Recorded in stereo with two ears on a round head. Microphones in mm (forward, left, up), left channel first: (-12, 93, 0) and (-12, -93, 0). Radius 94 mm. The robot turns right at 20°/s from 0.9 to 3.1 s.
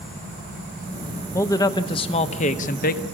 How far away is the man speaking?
About 1.0 m.